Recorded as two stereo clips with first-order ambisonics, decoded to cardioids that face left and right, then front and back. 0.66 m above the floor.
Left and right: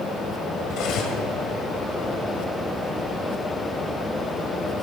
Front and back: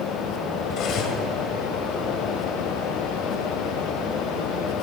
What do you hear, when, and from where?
0.7 s cutlery clinking: 45° left, 1.9 m